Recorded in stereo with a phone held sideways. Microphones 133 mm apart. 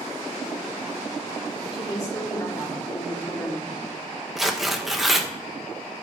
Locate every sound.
1.7 s a woman speaking: 25° left (ahead or behind), 1.3 m
4.4 s tearing paper: centre (ahead or behind), 0.6 m